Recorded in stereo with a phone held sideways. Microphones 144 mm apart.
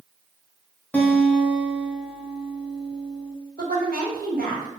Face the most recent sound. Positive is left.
turn(degrees=-80)